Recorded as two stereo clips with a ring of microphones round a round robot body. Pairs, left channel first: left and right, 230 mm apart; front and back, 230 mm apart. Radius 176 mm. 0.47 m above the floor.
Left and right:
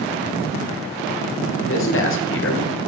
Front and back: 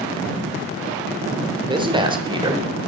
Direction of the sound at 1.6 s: 110° left.